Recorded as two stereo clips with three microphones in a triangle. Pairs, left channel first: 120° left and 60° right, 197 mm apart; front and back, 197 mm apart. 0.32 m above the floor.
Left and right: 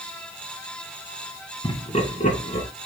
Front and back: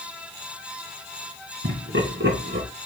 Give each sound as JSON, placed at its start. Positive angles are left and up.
{"t": 1.6, "sound": "laughter", "azimuth_deg": 180, "distance_m": 3.0}